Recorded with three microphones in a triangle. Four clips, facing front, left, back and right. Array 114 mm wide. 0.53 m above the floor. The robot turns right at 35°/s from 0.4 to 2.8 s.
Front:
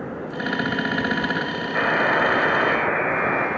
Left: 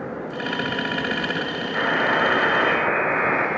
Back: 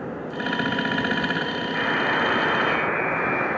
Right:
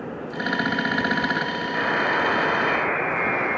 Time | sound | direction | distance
1.8 | a buzzer | 15° left | 1.8 m